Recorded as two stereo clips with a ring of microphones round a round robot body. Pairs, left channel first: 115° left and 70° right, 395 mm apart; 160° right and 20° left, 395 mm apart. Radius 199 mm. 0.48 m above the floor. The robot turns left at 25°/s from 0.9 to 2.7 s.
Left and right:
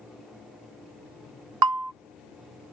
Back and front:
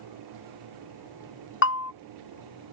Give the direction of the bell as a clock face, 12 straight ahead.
3 o'clock.